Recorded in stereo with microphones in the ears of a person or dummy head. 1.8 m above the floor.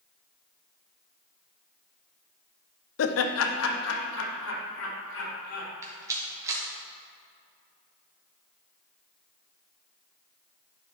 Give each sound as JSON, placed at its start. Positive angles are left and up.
{"t": 3.0, "sound": "laughter", "side_deg": 70, "distance_m": 0.7}
{"t": 5.8, "sound": "a rattle", "side_deg": -15, "distance_m": 2.5}